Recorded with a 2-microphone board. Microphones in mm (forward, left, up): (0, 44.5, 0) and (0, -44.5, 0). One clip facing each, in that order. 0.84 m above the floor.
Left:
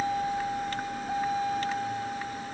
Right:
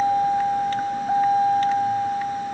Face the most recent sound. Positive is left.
turn(degrees=-40)  # may be behind; listen again after turning